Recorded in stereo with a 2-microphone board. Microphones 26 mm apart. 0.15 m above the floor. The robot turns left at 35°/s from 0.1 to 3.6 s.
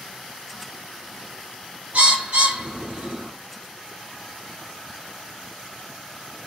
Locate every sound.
1.9 s a bird: 60° right (ahead or behind), 1.1 m; by 3.3 s 25° right (ahead or behind), 1.1 m